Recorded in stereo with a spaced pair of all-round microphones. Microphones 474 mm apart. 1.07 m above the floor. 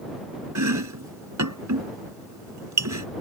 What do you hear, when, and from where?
0.6 s chopping: 35° right (ahead or behind)